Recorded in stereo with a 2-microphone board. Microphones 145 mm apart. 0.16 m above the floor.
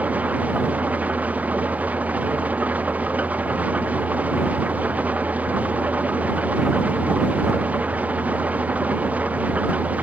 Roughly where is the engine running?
Centre.